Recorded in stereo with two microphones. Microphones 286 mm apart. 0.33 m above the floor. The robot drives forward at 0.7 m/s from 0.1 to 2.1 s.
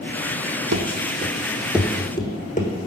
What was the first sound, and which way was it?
Running footsteps, 70° right (ahead or behind).